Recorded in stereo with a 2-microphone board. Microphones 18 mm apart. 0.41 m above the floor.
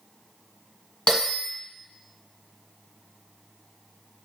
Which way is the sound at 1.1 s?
60° left (ahead or behind).